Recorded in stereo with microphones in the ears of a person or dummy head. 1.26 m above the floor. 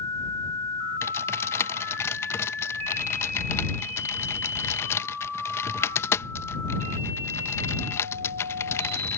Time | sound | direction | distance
1.0 | typing on a keyboard | 20° left (ahead or behind) | ?